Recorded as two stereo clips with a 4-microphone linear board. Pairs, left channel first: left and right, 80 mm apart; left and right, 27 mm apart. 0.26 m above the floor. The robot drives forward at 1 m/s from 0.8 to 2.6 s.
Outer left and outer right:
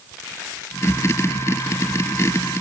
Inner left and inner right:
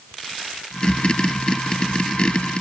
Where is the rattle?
No rattle in this recording.